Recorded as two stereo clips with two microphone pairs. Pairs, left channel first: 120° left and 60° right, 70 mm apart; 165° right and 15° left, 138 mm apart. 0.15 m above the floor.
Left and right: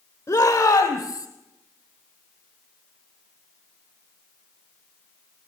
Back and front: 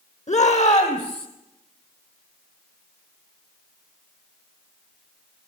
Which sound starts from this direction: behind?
A shout, at 0.3 s.